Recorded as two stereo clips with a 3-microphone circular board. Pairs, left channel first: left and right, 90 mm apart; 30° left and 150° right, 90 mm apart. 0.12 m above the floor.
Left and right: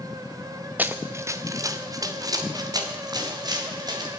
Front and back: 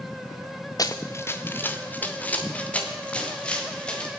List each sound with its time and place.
0.8 s running footsteps: 20° right, 0.7 m; by 4.1 s 50° right, 4 m